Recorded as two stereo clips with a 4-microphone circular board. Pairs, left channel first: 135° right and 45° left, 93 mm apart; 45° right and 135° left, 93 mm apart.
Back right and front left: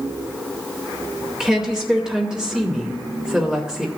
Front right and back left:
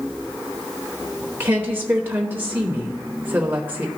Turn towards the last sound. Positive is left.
turn(degrees=115)